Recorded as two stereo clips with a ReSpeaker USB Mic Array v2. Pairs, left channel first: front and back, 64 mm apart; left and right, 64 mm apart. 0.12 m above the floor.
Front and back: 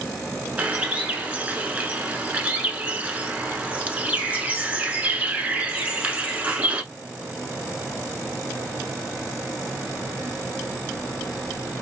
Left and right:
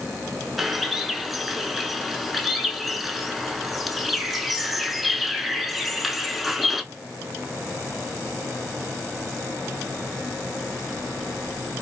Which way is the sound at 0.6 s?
175° right.